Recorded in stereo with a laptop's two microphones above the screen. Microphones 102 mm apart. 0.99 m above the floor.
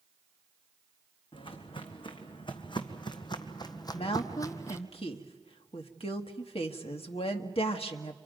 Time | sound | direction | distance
1.3 | footsteps | 55° left (ahead or behind) | 3 m
3.9 | a woman speaking | 70° left (ahead or behind) | 1.6 m